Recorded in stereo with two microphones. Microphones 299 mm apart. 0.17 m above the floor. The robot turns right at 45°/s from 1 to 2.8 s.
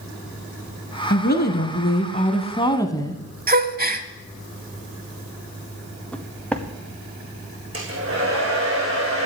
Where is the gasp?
30° right (ahead or behind), 0.7 m.